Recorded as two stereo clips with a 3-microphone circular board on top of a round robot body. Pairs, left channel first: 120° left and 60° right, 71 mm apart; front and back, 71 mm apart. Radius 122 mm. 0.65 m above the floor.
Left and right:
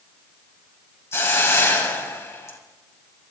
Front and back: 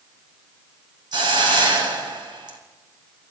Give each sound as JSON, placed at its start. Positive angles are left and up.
{"t": 1.1, "sound": "a hiss", "azimuth_deg": 175, "distance_m": 3.0}